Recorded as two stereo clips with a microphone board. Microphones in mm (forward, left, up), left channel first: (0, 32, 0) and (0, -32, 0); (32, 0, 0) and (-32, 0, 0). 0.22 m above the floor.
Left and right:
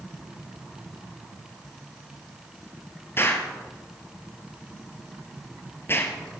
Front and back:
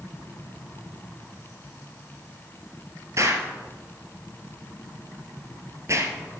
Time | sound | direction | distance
3.2 | an explosion | 140° left | 2.5 m